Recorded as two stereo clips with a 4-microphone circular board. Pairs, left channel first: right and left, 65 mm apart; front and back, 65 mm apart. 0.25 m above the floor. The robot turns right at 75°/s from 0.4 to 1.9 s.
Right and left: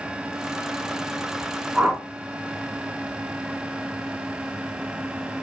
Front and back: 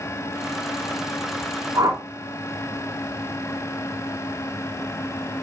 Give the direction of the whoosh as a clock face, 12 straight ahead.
7 o'clock.